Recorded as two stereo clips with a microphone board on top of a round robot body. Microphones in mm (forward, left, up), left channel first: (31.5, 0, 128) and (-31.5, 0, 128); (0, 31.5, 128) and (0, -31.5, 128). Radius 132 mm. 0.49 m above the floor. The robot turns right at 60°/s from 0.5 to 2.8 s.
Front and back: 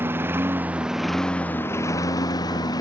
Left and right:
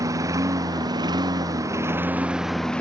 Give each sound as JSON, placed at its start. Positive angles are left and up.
{"t": 0.0, "sound": "a lawn mower", "azimuth_deg": -125}